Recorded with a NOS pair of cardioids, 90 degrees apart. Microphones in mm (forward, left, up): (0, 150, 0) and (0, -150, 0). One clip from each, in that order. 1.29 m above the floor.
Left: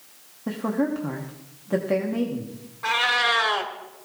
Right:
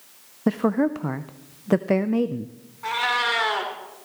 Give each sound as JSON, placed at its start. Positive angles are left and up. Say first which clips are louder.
{"t": 0.5, "sound": "a woman speaking", "louder": "right 4 dB", "azimuth_deg": -50, "distance_m": 0.6}
{"t": 2.8, "sound": "a cat meowing", "louder": "left 2 dB", "azimuth_deg": 30, "distance_m": 2.0}